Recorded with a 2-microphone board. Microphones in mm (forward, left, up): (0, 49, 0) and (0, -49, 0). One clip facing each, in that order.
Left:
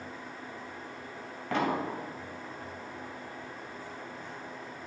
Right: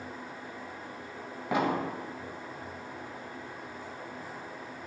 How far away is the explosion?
About 0.5 m.